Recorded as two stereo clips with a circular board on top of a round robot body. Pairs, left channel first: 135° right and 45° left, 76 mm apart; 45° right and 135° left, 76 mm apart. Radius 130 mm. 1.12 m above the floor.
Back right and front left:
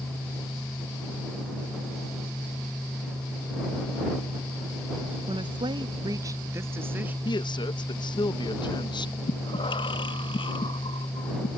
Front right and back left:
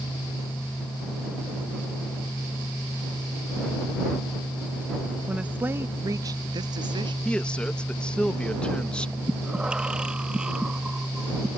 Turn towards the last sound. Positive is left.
turn(degrees=-145)